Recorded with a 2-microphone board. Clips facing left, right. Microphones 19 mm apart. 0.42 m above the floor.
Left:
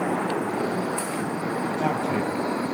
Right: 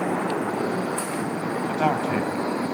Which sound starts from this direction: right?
A man speaking, at 1.7 s.